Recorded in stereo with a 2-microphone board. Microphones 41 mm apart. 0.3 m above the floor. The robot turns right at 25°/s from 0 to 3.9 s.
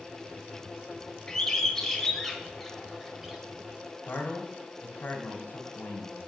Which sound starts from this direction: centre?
A bird, at 1.3 s.